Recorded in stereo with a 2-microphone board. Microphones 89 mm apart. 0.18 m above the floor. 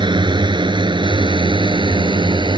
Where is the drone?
60° right (ahead or behind).